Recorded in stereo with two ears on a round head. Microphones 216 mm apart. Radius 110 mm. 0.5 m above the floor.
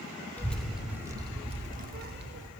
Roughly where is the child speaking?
Centre.